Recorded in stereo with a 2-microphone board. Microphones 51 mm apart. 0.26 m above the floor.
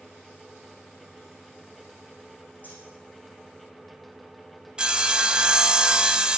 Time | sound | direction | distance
2.6 | cutlery clinking | 35° left (ahead or behind) | 8 m
4.8 | sawing | 20° right (ahead or behind) | 0.7 m